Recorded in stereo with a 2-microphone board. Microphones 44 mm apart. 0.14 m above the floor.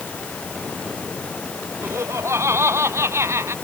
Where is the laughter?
85° right.